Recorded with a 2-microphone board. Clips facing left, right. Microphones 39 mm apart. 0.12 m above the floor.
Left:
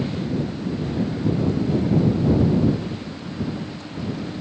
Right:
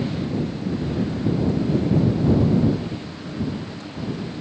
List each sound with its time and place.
Only background noise.